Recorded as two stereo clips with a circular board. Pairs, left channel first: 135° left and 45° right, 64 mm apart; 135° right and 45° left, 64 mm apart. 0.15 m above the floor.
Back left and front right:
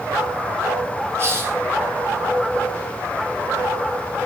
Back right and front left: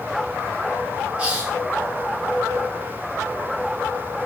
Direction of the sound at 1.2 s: 20° right.